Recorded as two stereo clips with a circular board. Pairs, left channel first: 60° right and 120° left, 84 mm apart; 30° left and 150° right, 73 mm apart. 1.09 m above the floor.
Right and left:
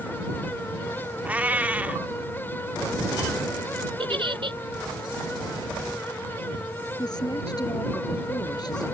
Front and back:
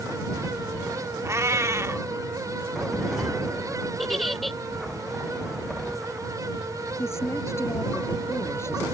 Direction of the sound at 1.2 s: 175° right.